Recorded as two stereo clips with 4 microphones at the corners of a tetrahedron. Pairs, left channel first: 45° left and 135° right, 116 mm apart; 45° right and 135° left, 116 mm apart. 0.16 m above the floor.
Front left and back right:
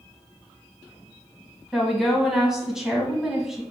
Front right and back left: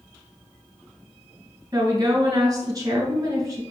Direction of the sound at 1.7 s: 145° left.